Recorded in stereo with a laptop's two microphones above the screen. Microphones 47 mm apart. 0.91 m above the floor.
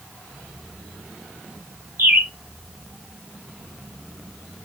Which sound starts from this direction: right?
A bird, at 2.0 s.